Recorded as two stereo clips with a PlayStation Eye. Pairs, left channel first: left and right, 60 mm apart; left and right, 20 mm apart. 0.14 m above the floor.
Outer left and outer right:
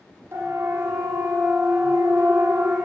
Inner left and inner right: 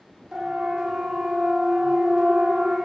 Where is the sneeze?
I don't hear a sneeze.